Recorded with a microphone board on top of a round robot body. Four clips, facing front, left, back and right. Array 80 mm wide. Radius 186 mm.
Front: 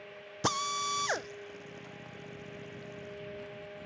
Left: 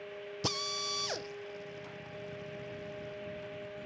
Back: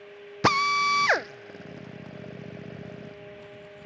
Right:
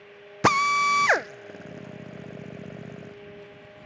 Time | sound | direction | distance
0.4 | a drill | 115° right | ?